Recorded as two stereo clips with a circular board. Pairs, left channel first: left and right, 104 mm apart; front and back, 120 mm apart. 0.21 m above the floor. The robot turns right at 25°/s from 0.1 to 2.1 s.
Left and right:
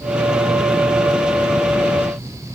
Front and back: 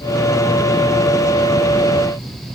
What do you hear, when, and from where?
Only background noise.